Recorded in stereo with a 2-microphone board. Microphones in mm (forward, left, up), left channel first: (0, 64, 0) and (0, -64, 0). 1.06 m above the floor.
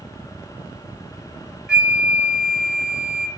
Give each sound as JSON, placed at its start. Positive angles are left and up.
{"t": 1.7, "sound": "a flute", "side_deg": -5, "distance_m": 0.7}